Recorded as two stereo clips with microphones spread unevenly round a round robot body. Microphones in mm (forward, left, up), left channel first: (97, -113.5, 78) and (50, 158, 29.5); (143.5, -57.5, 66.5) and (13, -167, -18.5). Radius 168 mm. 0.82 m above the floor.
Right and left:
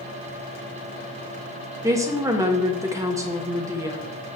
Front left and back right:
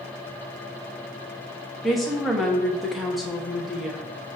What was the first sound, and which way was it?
A woman speaking, 160° left.